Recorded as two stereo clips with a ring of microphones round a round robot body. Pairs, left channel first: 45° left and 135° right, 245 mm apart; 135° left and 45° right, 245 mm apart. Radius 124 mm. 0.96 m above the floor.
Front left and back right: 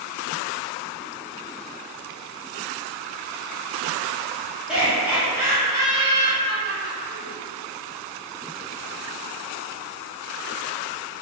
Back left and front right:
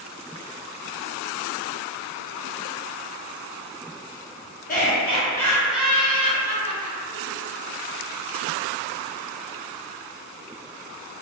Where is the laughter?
140° left, 0.9 m; by 7.3 s 70° right, 1.2 m.